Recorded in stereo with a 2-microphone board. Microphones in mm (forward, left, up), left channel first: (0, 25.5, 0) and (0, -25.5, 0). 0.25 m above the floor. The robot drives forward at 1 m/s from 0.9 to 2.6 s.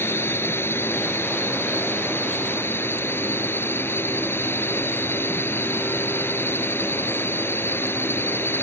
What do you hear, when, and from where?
0.0 s a drone: 60° left (ahead or behind); by 8.6 s 55° left (ahead or behind)